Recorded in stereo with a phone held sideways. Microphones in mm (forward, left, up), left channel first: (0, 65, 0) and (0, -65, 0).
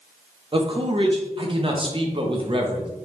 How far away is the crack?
I don't hear a crack.